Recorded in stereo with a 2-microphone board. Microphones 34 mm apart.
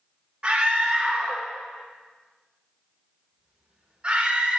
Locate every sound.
0.4 s a scream: 30° right (ahead or behind), 1.4 m